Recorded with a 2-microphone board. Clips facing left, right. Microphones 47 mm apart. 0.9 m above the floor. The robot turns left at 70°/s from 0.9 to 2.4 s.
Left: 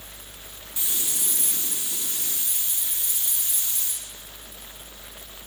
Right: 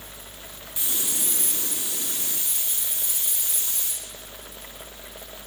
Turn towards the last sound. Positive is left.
turn(degrees=-125)